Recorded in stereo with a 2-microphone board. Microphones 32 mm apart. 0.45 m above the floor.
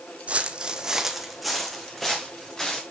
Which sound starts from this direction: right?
Footsteps, at 0.3 s.